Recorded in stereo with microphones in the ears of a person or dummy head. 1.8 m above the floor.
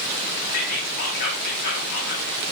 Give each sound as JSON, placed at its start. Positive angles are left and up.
{"t": 0.5, "sound": "whispering", "side_deg": 60, "distance_m": 3.0}